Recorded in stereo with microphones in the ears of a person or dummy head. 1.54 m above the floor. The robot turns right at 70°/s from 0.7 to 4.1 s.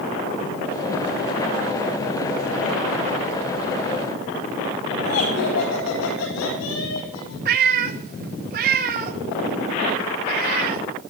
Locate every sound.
5.0 s laughter: 70° left (ahead or behind), 4.5 m
7.5 s a cat meowing: 40° right (ahead or behind), 1.0 m